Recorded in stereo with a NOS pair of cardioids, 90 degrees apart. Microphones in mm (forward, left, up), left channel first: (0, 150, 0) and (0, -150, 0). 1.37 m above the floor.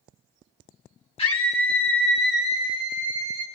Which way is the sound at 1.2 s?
20° left.